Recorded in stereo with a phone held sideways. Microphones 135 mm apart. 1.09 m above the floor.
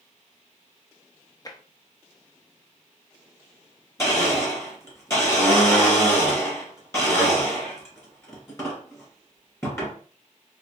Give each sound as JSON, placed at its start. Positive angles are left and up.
{"t": 1.4, "sound": "tapping", "side_deg": 30, "distance_m": 0.5}
{"t": 4.0, "sound": "a blender", "side_deg": 20, "distance_m": 2.5}